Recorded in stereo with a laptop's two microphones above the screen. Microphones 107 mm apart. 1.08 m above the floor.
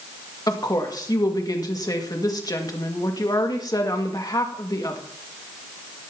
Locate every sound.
0.5 s a woman speaking: 35° left (ahead or behind), 1.8 m